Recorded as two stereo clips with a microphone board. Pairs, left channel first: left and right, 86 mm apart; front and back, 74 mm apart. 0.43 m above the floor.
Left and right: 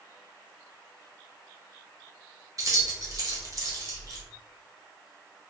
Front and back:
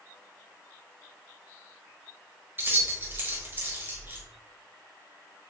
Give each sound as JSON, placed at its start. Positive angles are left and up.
{"t": 2.6, "sound": "keys jangling", "azimuth_deg": -125, "distance_m": 1.3}